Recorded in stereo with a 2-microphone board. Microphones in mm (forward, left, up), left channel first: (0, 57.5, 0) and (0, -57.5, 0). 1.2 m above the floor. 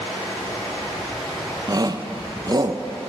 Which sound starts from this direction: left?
Running water, at 0.0 s.